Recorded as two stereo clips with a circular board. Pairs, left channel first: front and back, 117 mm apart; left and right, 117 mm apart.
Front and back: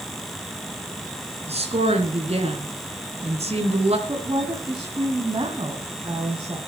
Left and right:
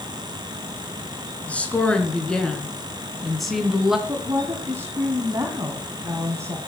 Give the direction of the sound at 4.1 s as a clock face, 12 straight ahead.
5 o'clock.